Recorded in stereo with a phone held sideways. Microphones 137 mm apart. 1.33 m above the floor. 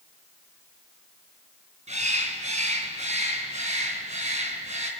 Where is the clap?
No clap in this recording.